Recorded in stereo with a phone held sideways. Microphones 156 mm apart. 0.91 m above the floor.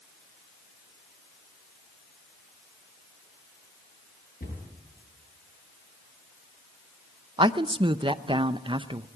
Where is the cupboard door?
70° left (ahead or behind), 7.5 m.